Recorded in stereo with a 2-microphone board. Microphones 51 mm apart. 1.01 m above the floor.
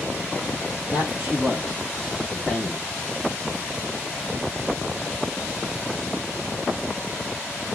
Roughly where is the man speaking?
Right.